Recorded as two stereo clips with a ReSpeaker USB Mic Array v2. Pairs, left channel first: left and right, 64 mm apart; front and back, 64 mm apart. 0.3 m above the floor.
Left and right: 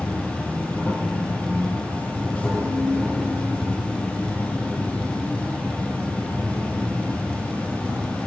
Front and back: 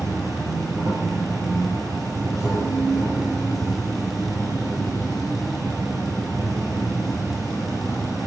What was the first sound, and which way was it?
An insect, 155° left.